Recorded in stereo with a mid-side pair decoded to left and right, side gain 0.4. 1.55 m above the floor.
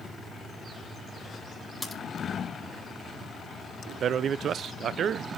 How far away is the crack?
About 4.5 m.